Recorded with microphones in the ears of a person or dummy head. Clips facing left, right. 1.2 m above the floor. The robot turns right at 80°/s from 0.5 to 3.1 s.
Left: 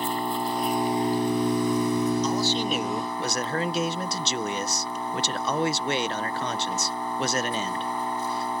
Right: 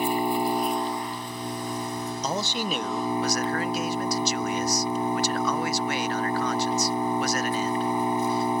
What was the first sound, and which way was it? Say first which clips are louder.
An engine running: right 4 dB; 20° right.